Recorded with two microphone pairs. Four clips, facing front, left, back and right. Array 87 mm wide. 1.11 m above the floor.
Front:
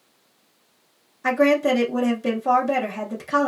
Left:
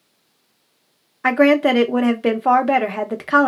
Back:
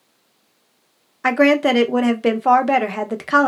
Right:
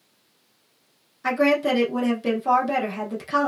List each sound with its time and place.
1.2 s a woman speaking: 130° left, 0.6 m